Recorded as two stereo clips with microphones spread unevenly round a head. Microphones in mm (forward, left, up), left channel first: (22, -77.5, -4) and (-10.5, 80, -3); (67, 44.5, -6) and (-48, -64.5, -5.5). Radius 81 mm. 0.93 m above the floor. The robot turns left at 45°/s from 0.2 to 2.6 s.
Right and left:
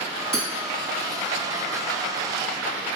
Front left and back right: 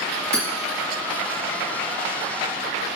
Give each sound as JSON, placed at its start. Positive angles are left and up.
{"t": 0.3, "sound": "hammering", "azimuth_deg": 175, "distance_m": 2.5}